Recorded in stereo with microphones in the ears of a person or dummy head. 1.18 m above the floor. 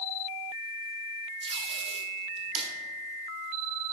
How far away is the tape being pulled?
About 1.9 m.